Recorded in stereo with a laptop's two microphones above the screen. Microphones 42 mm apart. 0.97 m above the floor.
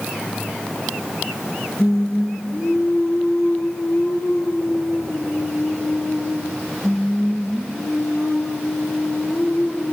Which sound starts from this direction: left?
Singing, at 1.8 s.